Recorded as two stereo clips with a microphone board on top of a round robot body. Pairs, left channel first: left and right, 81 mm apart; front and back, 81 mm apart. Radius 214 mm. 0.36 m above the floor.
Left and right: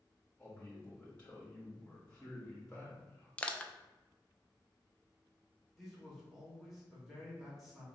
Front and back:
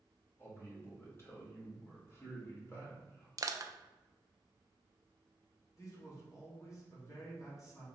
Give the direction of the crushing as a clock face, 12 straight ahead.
7 o'clock.